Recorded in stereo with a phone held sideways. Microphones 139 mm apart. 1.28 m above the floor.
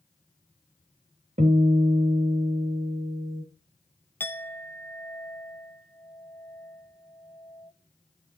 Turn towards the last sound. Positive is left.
turn(degrees=15)  # may be behind; listen again after turning